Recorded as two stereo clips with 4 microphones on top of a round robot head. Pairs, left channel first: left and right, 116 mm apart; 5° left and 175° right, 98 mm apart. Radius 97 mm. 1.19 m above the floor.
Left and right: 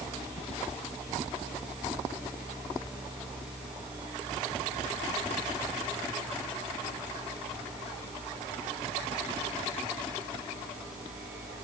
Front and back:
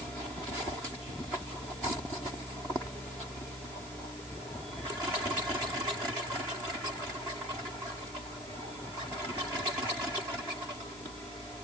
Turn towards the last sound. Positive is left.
No sound to turn to.